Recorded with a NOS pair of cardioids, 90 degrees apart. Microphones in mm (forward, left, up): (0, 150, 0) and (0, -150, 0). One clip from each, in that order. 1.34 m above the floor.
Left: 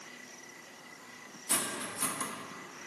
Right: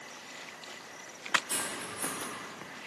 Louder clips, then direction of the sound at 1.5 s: Left 1 dB; 55° left.